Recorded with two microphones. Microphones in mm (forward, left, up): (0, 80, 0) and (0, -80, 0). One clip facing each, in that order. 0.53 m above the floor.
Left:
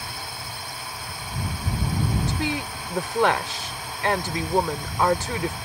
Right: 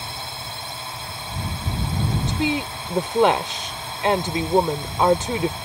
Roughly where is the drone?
Right.